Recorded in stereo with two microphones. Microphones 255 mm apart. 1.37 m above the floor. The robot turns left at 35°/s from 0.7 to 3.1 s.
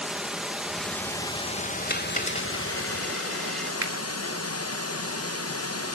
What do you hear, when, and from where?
0.0 s running water: 175° right, 0.9 m; by 6.0 s 100° left, 0.9 m
1.9 s a dropped coin: 40° left (ahead or behind), 2.5 m; by 3.7 s centre (ahead or behind), 2.5 m
3.8 s a finger snap: 60° right (ahead or behind), 2.5 m